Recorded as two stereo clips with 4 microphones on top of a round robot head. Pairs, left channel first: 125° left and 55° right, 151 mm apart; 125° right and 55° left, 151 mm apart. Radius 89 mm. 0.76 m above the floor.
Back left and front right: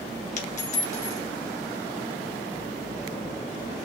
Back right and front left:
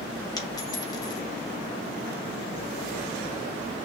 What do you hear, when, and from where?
0.4 s a dropped coin: 170° left, 2 m